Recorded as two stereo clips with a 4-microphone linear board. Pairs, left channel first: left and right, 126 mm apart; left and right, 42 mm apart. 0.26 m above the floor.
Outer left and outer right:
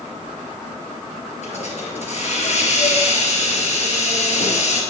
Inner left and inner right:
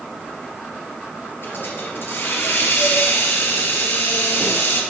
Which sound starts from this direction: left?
A hiss, at 1.4 s.